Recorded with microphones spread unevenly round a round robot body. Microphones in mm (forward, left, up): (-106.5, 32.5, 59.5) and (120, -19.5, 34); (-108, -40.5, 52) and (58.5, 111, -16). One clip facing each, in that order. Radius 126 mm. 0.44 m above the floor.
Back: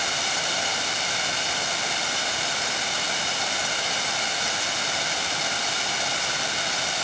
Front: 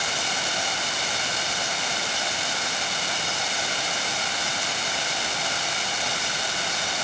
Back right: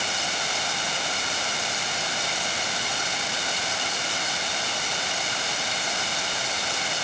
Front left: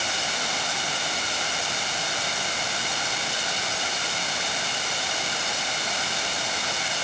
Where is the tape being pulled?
No tape being pulled in this recording.